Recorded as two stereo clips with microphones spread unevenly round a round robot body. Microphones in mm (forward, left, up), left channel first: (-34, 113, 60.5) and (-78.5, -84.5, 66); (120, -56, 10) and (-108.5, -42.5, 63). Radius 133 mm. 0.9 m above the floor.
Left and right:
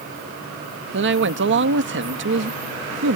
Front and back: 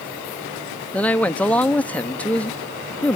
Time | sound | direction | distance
0.9 | a man speaking | 80° right | ?